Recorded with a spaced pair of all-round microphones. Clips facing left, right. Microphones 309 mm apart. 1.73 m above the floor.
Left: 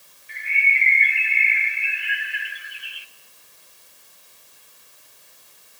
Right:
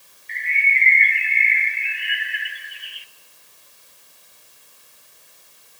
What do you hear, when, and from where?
0.3 s a bird: 10° left (ahead or behind), 0.5 m